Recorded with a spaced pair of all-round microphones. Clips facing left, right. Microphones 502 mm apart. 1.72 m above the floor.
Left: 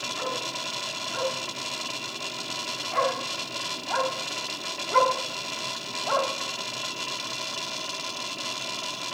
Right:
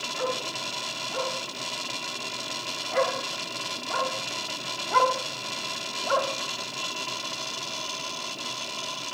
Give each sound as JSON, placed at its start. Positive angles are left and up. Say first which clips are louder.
{"t": 0.2, "sound": "a dog barking", "louder": "right 4 dB", "side_deg": 45, "distance_m": 7.0}